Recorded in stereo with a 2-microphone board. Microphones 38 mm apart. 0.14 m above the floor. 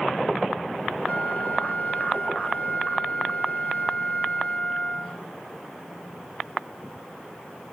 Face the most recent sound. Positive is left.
turn(degrees=35)  # may be behind; listen again after turning